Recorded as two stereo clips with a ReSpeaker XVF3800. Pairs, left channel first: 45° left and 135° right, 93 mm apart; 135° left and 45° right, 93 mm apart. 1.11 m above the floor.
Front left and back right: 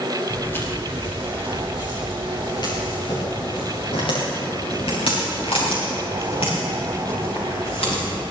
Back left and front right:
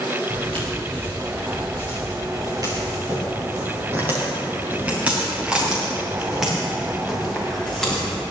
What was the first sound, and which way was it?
Footsteps, 25° right.